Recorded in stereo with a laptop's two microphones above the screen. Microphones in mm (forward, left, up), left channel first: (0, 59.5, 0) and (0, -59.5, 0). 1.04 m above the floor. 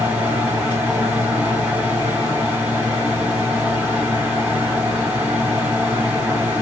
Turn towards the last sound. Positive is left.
turn(degrees=-15)  # may be behind; listen again after turning